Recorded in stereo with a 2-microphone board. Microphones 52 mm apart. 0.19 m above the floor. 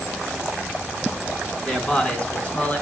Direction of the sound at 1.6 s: 15° left (ahead or behind).